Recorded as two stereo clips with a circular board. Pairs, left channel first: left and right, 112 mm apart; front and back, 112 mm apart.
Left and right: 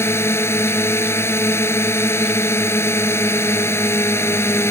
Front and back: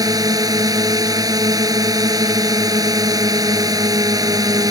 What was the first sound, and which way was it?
A drone, 145° left.